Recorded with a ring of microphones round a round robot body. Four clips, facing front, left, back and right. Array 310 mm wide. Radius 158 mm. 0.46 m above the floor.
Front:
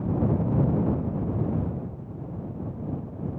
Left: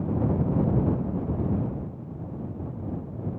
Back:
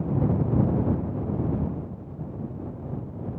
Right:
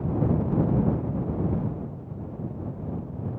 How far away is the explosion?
I don't hear an explosion.